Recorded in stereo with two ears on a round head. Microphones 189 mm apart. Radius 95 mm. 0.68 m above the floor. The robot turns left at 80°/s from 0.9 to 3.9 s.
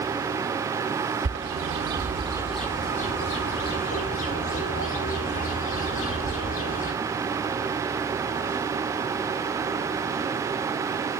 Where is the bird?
70° right (ahead or behind), 2.5 m; by 6.9 s 70° left (ahead or behind), 2.5 m.